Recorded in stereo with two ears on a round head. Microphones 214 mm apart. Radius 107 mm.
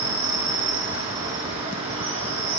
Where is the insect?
25° right (ahead or behind), 2.5 m.